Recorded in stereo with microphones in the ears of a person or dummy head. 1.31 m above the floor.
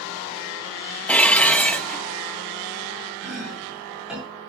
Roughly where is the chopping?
Centre.